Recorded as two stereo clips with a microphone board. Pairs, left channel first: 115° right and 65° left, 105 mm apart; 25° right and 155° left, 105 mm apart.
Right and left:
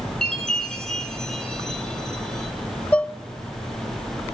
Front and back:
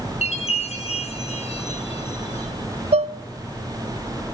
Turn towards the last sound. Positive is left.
turn(degrees=170)